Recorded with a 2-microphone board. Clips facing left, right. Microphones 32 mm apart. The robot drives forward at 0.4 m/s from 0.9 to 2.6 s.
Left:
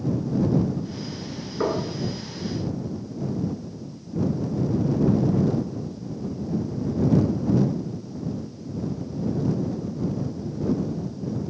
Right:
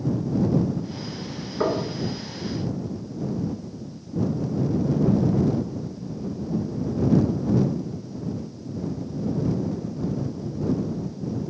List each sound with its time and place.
1.6 s knocking: centre (ahead or behind), 1.1 m